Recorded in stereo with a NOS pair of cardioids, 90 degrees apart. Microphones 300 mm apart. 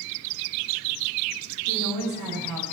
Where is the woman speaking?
70° right, 6 m.